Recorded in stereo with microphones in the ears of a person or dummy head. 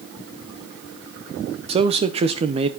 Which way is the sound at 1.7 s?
30° right (ahead or behind).